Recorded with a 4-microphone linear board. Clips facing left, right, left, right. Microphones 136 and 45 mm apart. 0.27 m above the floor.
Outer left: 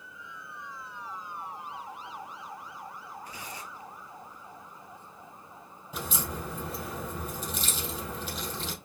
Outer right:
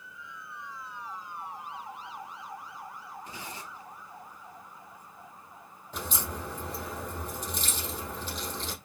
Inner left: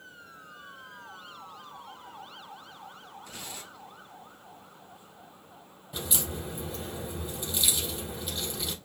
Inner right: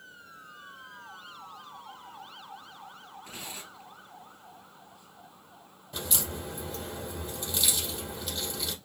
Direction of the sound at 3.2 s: 25° right (ahead or behind).